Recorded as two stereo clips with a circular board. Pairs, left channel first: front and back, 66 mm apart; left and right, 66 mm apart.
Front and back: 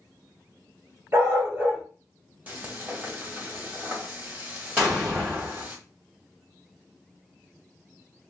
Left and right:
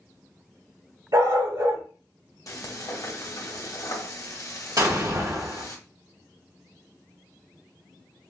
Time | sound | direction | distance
1.1 | a dog barking | 120° right | 1.8 m
2.5 | frying | 115° left | 1.0 m
4.8 | an explosion | 115° right | 2.5 m